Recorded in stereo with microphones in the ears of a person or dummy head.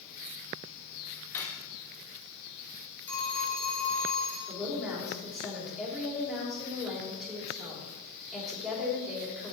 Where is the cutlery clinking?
15° left (ahead or behind), 1.3 m.